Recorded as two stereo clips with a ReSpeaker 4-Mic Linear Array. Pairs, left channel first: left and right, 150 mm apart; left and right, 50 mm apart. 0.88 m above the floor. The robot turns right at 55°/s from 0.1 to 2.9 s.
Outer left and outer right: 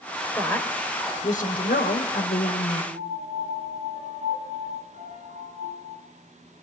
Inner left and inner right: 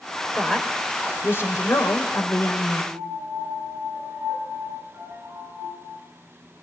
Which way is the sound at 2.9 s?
65° right (ahead or behind).